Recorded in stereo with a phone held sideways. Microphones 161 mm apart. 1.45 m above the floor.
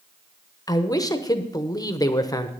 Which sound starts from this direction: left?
A man speaking, at 0.7 s.